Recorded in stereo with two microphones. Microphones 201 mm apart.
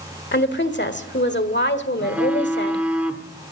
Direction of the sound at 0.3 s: 65° left (ahead or behind).